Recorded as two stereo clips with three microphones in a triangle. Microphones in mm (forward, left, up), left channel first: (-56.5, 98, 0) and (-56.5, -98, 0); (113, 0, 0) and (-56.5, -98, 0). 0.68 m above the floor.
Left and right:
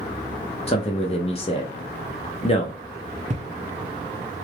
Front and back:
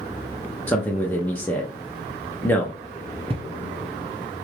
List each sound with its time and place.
0.7 s a man speaking: 100° left, 0.6 m
3.3 s footsteps: 105° right, 0.8 m